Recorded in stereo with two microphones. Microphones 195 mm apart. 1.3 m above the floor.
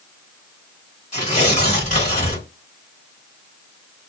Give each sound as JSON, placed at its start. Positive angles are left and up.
{"t": 1.1, "sound": "tearing paper", "side_deg": 40, "distance_m": 1.4}